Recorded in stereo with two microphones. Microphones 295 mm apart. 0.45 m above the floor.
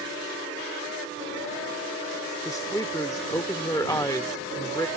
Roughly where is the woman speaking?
Centre.